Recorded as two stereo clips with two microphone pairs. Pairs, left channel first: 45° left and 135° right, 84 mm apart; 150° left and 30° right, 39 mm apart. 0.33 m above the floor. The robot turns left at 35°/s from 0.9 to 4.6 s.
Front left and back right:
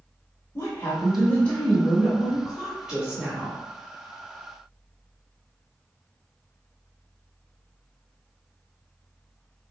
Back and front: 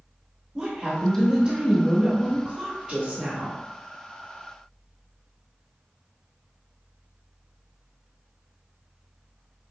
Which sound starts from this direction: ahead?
A woman speaking, at 0.6 s.